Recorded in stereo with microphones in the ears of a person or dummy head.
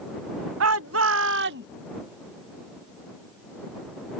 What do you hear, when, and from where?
0.6 s a shout: 80° right; by 1.7 s 60° right (ahead or behind)